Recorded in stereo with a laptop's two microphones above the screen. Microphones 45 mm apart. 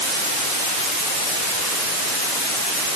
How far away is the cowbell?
No cowbell in this recording.